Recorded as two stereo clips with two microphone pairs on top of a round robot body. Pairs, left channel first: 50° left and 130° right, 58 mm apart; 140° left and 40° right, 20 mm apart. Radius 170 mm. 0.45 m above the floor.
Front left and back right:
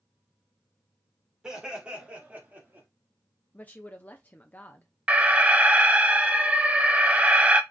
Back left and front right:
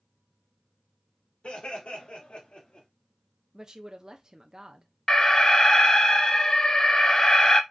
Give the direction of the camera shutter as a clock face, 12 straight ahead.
I don't hear a camera shutter.